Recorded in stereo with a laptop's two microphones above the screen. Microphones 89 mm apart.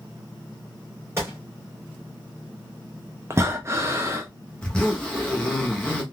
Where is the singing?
I don't hear singing.